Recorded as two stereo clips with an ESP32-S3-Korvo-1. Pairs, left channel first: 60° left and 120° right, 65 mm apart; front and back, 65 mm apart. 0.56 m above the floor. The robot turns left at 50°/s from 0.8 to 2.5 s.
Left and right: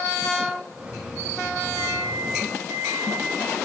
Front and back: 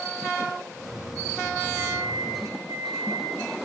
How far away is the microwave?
About 5 m.